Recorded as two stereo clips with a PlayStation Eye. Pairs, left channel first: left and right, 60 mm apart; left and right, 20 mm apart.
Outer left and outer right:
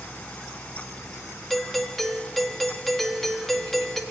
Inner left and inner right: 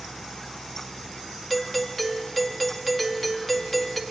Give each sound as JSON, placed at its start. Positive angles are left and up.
{"t": 1.5, "sound": "a doorbell", "side_deg": 5, "distance_m": 1.9}